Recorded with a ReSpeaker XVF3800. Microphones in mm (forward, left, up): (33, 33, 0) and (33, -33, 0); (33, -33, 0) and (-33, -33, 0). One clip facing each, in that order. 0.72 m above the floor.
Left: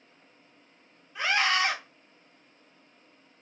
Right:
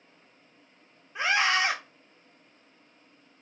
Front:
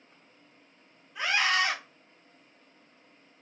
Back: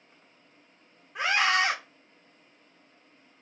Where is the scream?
150° right, 1.4 m.